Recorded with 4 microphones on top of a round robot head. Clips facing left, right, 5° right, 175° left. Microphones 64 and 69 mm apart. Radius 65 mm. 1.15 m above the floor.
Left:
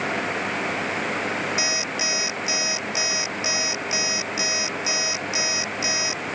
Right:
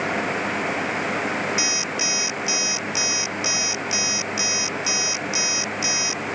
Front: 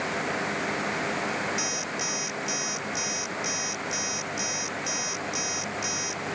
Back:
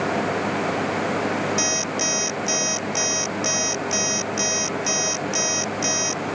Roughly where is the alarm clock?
Behind left.